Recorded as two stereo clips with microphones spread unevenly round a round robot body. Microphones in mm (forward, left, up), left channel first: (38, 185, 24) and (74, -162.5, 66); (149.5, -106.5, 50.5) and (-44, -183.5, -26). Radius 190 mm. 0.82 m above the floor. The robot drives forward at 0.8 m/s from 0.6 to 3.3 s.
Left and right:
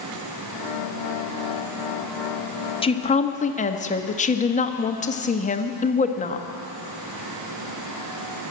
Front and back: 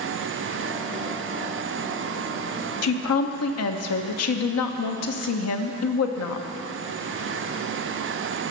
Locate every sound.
2.8 s a woman speaking: 25° left, 1.6 m; by 6.5 s 30° left, 1.3 m